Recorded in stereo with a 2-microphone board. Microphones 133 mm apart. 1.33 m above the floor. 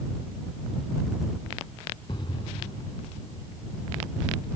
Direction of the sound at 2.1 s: 40° left (ahead or behind).